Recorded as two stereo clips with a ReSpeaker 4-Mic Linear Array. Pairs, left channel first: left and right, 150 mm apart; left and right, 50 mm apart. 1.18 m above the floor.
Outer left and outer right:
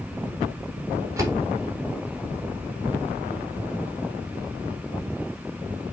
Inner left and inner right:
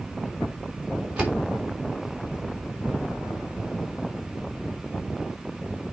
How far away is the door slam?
About 2.5 m.